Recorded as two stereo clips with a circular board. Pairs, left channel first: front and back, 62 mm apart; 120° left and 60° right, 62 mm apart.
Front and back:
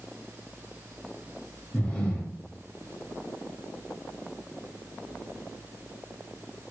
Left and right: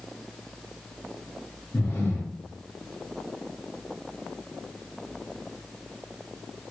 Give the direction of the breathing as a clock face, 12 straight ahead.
10 o'clock.